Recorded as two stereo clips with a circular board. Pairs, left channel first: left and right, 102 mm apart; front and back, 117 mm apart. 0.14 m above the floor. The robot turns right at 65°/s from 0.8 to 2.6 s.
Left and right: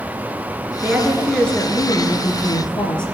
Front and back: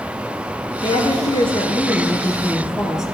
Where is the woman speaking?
20° right, 1.7 m; by 3.0 s 95° left, 1.7 m.